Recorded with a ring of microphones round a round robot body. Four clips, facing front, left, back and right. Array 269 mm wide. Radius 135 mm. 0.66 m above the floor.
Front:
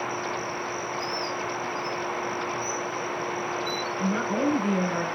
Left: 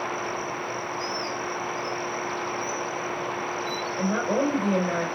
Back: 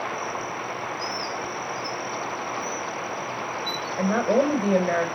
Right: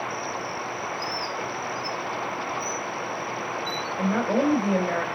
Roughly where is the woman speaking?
Behind.